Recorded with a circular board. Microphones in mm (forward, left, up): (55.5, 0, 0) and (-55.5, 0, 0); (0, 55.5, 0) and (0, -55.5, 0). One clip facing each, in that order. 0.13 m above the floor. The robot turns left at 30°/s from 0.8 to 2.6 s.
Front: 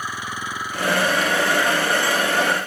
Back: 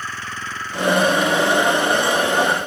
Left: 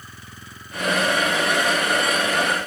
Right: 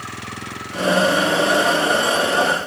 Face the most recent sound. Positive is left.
turn(degrees=-130)